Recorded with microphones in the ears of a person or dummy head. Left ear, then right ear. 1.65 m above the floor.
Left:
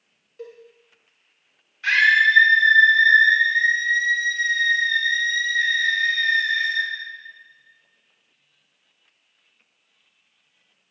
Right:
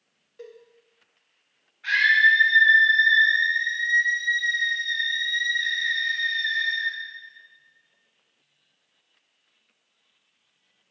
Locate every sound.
0.4 s a cowbell: 10° right (ahead or behind), 1.7 m
1.8 s a scream: 80° left, 2.5 m